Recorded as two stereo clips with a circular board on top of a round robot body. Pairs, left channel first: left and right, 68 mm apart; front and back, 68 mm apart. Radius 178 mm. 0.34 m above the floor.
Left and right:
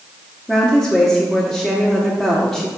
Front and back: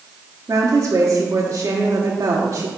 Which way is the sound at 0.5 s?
175° left.